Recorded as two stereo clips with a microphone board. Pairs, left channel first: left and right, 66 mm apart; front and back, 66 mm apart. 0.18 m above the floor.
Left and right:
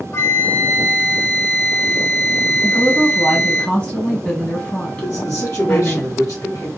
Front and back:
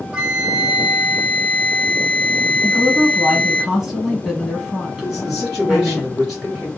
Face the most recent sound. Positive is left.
turn(degrees=90)